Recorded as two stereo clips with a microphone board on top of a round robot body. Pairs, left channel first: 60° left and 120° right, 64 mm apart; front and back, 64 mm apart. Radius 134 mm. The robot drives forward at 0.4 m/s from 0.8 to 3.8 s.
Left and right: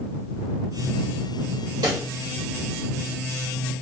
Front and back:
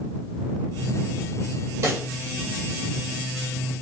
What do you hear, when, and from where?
1.8 s a pop: 135° right, 0.7 m; by 2.1 s 140° right, 0.8 m